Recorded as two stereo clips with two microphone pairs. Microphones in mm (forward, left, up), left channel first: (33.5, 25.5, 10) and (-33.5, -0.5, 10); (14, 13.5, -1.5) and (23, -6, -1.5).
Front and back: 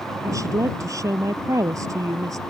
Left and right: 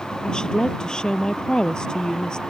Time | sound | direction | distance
0.2 | a woman speaking | 165° left | ?